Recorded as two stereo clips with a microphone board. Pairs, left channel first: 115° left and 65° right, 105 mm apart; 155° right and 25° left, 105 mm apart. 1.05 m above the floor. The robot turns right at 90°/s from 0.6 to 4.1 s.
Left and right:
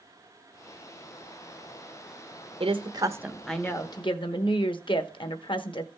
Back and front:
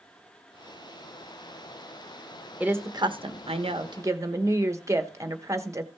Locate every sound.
2.6 s a woman speaking: 55° right, 1.0 m; by 5.9 s 80° left, 1.0 m